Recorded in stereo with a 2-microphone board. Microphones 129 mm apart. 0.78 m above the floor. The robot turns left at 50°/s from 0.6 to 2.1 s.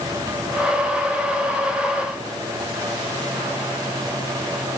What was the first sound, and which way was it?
Only background noise.